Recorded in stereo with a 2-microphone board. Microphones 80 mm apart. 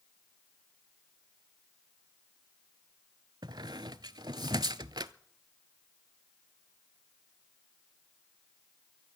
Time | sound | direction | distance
3.4 | a squeak | 65° right (ahead or behind) | 0.5 m